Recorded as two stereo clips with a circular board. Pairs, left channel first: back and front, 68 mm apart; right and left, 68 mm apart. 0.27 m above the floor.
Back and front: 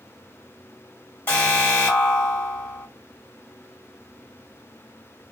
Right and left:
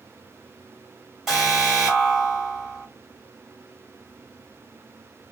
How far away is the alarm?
About 1.9 m.